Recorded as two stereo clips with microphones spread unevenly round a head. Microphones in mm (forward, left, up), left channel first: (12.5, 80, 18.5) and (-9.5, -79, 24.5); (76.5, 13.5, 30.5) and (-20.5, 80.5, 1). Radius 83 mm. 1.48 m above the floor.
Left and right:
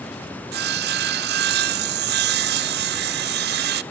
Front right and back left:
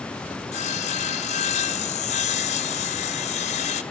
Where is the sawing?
80° right, 0.6 m.